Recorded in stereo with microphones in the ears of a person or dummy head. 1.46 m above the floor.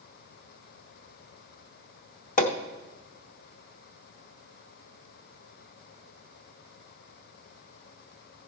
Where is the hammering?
45° left (ahead or behind), 0.8 m.